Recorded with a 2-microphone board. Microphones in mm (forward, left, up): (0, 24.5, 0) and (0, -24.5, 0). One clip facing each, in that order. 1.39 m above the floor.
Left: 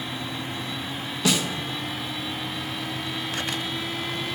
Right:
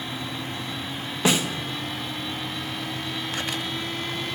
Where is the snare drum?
30° right (ahead or behind), 1.1 m.